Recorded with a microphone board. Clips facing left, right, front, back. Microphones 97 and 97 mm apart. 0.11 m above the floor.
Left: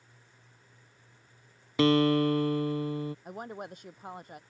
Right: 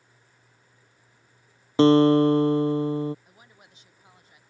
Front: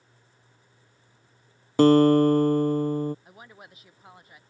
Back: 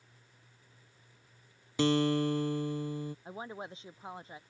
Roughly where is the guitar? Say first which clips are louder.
Right 7 dB, front 12 dB; ahead right.